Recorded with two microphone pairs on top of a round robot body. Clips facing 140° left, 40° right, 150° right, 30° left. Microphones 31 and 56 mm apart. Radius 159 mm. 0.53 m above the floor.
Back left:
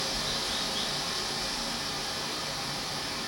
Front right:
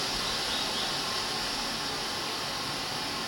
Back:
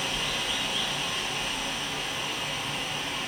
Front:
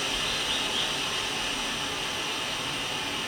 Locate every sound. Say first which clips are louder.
0.0 s running water: front right 1 dB, even; 60° right, 4 m